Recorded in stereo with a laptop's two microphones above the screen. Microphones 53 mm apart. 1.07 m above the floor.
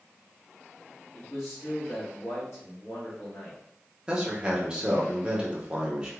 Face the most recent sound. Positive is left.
turn(degrees=-20)  # may be behind; listen again after turning